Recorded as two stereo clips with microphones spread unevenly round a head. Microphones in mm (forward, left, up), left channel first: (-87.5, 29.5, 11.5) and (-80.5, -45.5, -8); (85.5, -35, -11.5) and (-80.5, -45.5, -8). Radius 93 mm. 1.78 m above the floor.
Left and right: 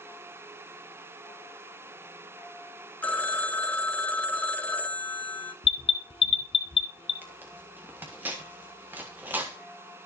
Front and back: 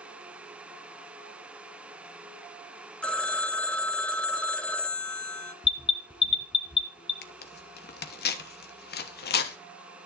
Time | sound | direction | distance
3.0 | a phone ringing | 85° left | 0.8 m
5.6 | an alarm | 70° left | 0.8 m
7.2 | tearing paper | straight ahead | 1.0 m